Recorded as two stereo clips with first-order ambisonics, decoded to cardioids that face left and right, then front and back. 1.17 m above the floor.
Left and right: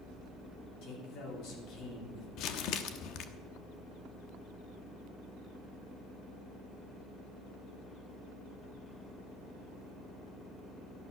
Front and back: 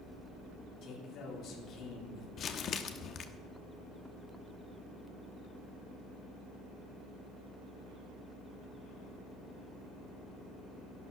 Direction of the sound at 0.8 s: 50° left.